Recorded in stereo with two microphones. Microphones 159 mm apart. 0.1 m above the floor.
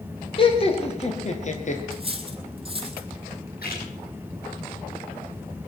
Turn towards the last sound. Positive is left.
turn(degrees=70)  # may be behind; listen again after turning